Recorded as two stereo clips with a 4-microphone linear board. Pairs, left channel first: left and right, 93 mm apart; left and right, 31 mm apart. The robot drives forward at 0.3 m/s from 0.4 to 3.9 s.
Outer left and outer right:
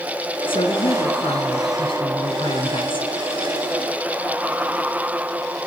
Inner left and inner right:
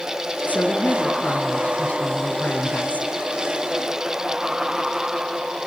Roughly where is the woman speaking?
Left.